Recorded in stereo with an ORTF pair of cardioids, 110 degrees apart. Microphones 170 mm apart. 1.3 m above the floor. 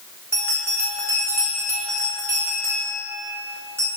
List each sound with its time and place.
0.3 s a bell: 15° right, 1.2 m